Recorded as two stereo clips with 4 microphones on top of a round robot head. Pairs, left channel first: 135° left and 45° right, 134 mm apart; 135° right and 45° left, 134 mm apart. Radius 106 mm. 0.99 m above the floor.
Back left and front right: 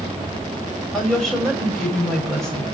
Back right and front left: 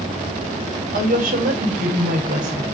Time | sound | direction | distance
0.9 | a woman speaking | 50° left | 6 m